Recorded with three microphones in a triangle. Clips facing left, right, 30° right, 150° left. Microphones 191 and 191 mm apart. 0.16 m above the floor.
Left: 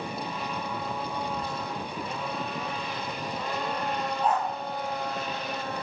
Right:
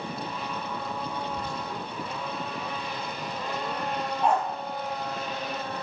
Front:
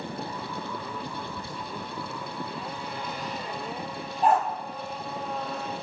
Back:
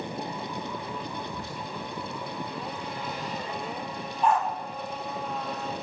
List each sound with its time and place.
1.3 s whispering: 140° left, 4 m
4.2 s a dog barking: 80° right, 2.5 m